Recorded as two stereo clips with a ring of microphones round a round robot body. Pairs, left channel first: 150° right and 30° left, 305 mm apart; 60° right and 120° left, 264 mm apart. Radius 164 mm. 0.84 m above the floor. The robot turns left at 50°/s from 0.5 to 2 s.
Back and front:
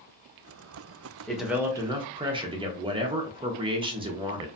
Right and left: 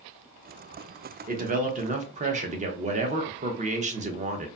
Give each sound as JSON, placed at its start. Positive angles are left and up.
{"t": 1.3, "sound": "a man speaking", "azimuth_deg": 125, "distance_m": 0.7}